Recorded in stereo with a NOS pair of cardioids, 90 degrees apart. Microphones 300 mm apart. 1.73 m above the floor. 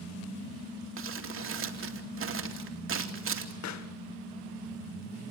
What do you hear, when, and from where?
1.0 s crumpling: 45° right, 3 m
3.6 s a pop: 65° left, 2 m